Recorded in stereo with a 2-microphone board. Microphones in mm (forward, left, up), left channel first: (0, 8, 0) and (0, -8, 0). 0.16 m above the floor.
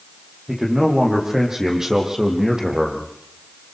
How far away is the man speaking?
About 8 m.